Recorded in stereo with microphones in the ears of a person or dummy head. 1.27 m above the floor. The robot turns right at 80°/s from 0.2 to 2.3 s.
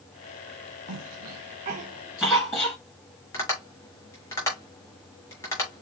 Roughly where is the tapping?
Centre.